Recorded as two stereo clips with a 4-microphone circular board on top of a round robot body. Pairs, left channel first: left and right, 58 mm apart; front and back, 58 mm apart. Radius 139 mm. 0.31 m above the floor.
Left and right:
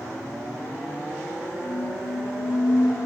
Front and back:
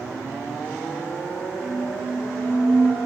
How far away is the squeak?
About 4.5 m.